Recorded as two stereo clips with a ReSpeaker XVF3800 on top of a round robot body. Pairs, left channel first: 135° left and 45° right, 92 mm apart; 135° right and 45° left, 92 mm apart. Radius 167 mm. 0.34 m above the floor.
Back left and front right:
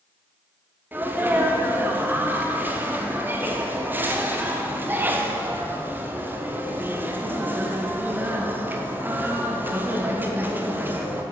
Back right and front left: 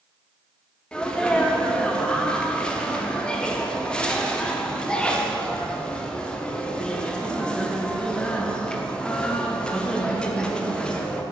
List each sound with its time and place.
0.9 s a sneeze: 70° right, 0.9 m